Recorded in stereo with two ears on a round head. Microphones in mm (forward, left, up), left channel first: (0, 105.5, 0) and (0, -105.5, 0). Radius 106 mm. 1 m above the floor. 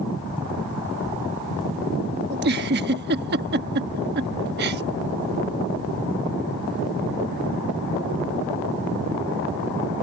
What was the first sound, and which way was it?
A giggle, 45° right (ahead or behind).